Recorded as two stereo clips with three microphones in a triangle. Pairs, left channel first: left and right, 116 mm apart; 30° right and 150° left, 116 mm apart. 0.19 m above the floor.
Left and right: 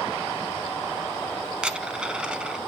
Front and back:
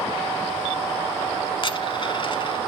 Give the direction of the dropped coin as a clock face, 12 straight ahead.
12 o'clock.